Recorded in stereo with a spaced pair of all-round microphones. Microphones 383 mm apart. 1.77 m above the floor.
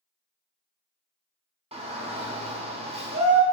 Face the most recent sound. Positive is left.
turn(degrees=-15)  # may be behind; listen again after turning